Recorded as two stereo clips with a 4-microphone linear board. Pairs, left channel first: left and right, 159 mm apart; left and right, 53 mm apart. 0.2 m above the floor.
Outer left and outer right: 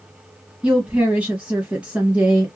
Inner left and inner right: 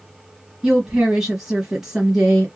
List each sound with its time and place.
0.6 s a woman speaking: 5° right (ahead or behind), 1.0 m